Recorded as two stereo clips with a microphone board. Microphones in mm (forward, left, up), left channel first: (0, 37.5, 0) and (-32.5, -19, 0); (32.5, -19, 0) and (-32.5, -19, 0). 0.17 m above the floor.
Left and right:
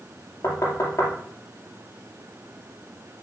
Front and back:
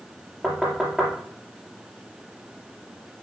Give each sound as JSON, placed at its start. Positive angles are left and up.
{"t": 0.4, "sound": "knocking", "azimuth_deg": 100, "distance_m": 3.5}